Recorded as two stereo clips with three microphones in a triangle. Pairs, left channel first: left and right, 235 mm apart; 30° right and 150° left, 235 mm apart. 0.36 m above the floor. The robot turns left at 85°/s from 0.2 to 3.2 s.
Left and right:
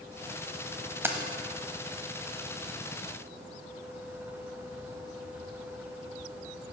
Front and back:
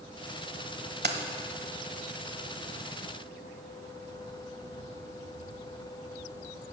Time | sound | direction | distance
1.0 | keys jangling | 165° right | 1.1 m